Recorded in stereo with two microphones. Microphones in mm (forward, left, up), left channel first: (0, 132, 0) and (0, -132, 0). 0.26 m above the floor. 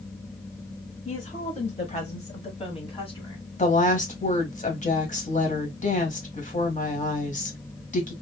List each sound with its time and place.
1.1 s a woman speaking: 25° left (ahead or behind), 1.2 m; by 3.4 s 20° left (ahead or behind), 1.8 m
3.6 s a woman speaking: 30° left (ahead or behind), 1.4 m